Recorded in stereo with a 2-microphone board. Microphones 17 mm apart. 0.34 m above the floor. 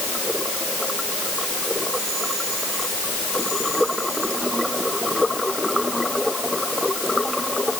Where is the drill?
I don't hear a drill.